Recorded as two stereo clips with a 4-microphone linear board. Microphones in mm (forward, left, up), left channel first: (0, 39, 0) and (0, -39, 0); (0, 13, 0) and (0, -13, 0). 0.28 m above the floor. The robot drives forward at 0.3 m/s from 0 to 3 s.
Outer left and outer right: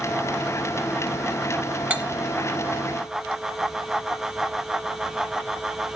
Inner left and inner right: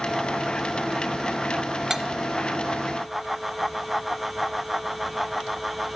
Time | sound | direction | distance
1.9 | cutlery clinking | 20° right (ahead or behind) | 0.7 m